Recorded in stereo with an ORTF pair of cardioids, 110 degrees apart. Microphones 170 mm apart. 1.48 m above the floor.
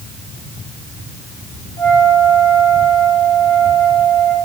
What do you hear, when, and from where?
1.8 s a flute: 25° left, 4.5 m